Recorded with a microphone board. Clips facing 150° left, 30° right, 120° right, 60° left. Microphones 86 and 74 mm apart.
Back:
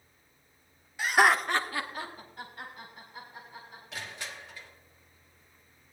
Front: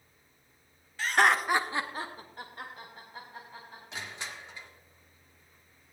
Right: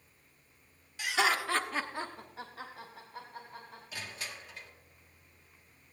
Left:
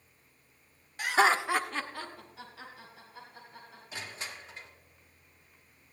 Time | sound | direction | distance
1.0 | laughter | 80° left | 1.1 m
3.9 | crushing | 20° left | 1.6 m